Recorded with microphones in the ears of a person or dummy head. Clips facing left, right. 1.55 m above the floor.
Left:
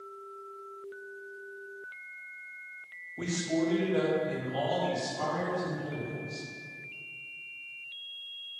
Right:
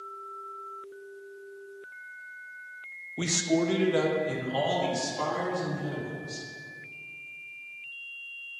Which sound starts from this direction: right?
A man speaking, at 3.2 s.